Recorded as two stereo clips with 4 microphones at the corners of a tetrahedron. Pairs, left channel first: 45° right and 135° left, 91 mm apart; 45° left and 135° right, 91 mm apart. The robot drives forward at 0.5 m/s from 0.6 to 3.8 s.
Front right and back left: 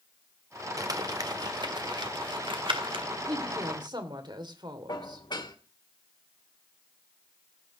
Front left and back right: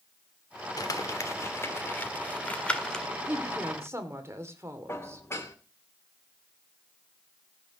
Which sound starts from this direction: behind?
A woman speaking, at 3.3 s.